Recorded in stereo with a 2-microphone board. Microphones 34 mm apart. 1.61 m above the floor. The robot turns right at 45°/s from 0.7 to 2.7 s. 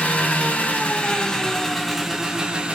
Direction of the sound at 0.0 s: 130° left.